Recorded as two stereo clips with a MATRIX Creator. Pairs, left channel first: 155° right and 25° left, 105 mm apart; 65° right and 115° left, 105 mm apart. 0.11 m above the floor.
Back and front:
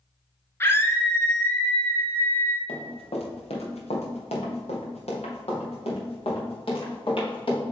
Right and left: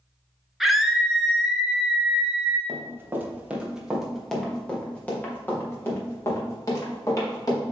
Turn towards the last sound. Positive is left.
turn(degrees=-120)